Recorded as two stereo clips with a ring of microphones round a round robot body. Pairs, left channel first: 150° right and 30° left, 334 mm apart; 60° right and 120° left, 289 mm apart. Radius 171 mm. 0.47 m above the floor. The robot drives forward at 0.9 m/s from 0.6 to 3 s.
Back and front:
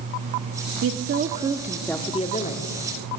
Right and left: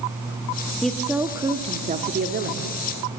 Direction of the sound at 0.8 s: 25° left.